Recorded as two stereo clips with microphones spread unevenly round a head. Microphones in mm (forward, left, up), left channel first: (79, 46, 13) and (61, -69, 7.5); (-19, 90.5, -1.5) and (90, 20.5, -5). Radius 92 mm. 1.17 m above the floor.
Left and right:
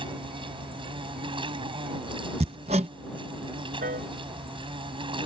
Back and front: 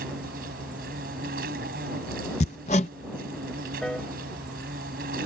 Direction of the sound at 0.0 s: 55° right.